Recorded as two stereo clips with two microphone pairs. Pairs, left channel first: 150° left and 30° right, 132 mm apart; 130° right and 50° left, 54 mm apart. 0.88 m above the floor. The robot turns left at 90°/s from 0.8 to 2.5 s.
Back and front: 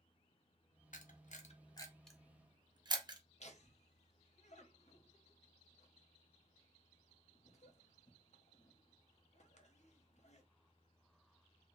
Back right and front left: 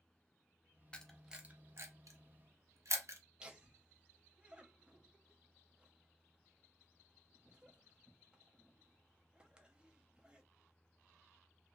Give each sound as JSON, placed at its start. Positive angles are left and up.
{"t": 0.9, "sound": "a camera shutter", "azimuth_deg": 165, "distance_m": 0.6}
{"t": 3.4, "sound": "laughter", "azimuth_deg": 125, "distance_m": 0.8}